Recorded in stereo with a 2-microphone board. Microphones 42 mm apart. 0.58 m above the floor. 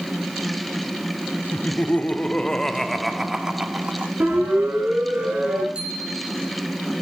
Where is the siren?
40° right (ahead or behind), 6.5 m; by 5.7 s 30° right (ahead or behind), 5.5 m.